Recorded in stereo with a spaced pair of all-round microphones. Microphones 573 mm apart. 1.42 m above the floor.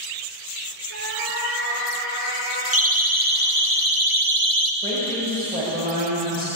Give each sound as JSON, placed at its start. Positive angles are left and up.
{"t": 0.9, "sound": "a cat meowing", "side_deg": -80, "distance_m": 10.0}
{"t": 2.7, "sound": "a siren", "side_deg": -25, "distance_m": 2.5}
{"t": 4.8, "sound": "a woman speaking", "side_deg": -10, "distance_m": 6.5}